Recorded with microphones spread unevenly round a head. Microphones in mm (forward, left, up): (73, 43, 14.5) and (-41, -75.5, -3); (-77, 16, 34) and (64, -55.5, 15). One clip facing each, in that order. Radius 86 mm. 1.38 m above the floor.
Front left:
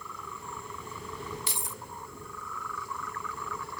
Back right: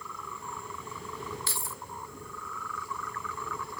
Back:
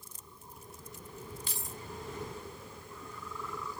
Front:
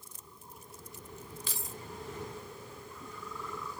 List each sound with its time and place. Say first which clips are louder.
1.5 s keys jangling: even, even; 20° right, 0.6 m